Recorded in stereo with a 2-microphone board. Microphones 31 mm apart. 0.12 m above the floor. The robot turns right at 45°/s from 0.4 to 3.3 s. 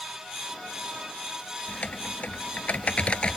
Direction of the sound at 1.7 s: 65° left.